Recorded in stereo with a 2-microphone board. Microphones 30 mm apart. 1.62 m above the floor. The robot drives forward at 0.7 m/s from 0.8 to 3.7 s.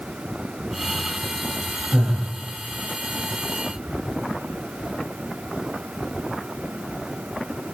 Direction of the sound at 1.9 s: 25° right (ahead or behind).